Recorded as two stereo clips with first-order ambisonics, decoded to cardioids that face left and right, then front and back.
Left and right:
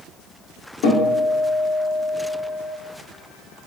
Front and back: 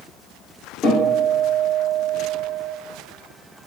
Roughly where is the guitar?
Left.